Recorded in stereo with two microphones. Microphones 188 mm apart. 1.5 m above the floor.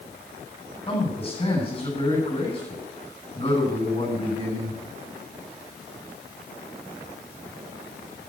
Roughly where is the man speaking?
Left.